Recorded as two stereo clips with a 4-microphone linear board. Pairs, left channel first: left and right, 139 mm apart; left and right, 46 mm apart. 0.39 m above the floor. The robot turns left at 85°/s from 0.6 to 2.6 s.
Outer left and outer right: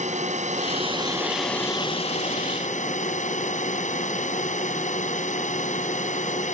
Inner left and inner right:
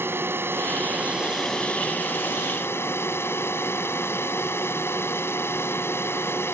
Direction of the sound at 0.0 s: 110° right.